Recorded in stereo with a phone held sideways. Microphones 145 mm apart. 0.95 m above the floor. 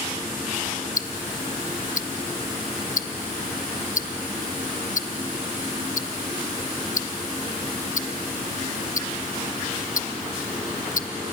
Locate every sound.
1.0 s ticking: 60° left (ahead or behind), 0.9 m